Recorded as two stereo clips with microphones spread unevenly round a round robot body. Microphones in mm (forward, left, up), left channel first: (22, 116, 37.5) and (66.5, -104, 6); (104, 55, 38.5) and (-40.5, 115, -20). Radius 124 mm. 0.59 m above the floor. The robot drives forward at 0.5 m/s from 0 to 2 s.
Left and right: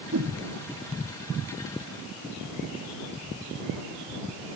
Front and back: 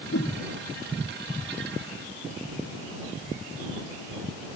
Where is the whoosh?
40° right.